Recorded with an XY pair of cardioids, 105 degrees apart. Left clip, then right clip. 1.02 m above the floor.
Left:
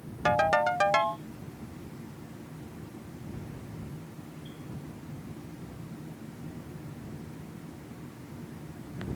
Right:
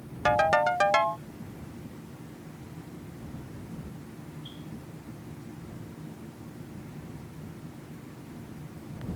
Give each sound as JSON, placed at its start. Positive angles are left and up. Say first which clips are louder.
{"t": 0.2, "sound": "a ringtone", "louder": "right 2 dB", "azimuth_deg": -10}